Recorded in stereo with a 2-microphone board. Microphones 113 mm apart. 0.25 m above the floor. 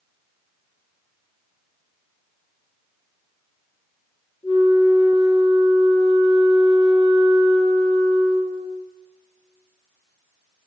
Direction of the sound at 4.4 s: 70° left (ahead or behind).